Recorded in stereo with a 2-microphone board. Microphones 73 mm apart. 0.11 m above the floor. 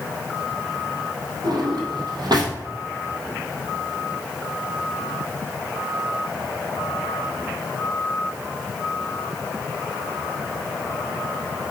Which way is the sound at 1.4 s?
70° right (ahead or behind).